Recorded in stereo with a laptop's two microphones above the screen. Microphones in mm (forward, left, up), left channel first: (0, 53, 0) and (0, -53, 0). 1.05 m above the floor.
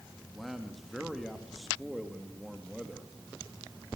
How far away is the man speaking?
About 1.4 m.